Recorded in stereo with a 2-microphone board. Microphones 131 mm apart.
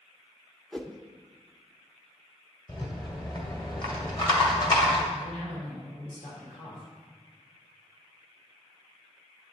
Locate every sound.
0.7 s a whoosh: 5° left (ahead or behind), 0.5 m
2.7 s a rattle: 35° left (ahead or behind), 1.6 m
5.1 s a man speaking: 60° left (ahead or behind), 3.5 m